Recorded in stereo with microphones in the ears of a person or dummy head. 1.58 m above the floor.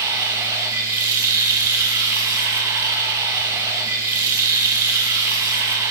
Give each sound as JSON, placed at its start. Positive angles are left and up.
{"t": 0.0, "sound": "running water", "side_deg": -20, "distance_m": 1.6}